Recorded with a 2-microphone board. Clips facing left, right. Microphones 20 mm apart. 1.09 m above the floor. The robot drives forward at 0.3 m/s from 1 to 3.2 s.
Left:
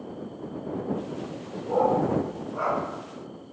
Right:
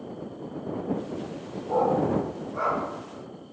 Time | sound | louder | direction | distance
1.7 | a dog barking | left 1 dB | 10° right (ahead or behind) | 1.0 m